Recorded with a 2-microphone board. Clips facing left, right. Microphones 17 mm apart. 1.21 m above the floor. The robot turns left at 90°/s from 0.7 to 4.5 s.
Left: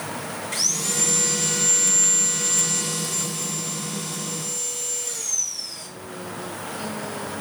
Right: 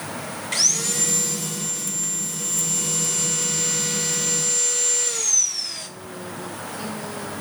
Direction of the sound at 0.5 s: 150° right.